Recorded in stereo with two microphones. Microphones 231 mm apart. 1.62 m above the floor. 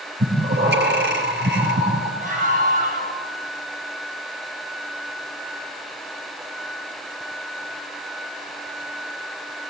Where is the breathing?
50° right (ahead or behind), 4 m.